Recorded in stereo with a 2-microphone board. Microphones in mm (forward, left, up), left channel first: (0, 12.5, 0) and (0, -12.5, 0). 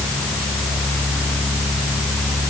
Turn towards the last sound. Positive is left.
No sound to turn to.